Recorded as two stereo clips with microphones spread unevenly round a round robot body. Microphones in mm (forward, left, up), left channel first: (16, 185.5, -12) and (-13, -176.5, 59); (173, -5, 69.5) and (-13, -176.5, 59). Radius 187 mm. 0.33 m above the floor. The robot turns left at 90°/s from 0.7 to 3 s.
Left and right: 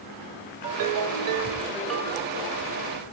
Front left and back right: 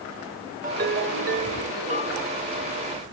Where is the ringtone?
85° right, 1.3 m; by 2.4 s 125° left, 1.3 m.